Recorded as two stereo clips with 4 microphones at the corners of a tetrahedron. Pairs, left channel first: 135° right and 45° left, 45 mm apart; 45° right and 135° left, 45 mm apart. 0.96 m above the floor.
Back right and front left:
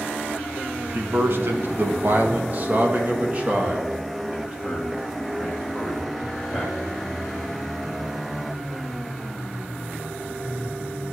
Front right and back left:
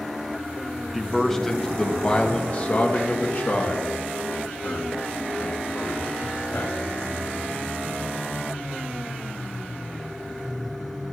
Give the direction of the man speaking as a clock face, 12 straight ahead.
10 o'clock.